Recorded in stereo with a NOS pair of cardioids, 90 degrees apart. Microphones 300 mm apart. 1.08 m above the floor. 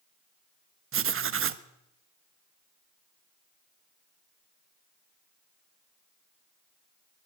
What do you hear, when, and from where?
0.9 s writing: 45° right, 1.4 m